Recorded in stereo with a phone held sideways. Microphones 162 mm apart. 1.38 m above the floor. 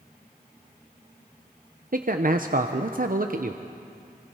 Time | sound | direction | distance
1.9 | a man speaking | 60° right (ahead or behind) | 0.8 m